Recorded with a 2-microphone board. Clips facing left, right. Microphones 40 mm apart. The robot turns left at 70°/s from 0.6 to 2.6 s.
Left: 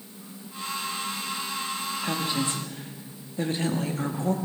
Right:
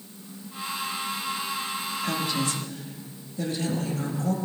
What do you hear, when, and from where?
2.0 s a woman speaking: 160° left, 0.9 m; by 4.3 s 120° left, 0.9 m